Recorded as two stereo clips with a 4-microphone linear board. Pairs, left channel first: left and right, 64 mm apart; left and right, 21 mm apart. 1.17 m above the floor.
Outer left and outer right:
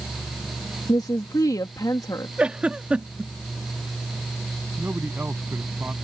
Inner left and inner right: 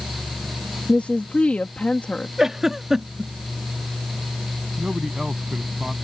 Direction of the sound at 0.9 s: 75° left (ahead or behind).